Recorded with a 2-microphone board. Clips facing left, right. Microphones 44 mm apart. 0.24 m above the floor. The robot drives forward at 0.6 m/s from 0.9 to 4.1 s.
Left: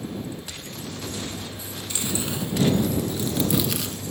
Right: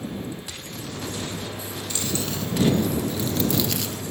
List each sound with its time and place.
1.9 s chewing: 20° left (ahead or behind), 0.8 m; by 4.0 s 10° left (ahead or behind), 2.0 m